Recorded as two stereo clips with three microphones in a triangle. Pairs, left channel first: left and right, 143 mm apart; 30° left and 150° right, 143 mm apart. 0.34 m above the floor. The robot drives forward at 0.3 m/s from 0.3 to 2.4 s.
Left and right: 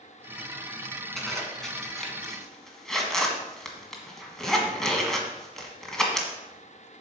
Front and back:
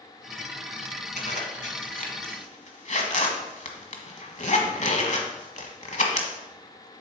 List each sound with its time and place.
1.2 s a zipper: 5° left, 1.8 m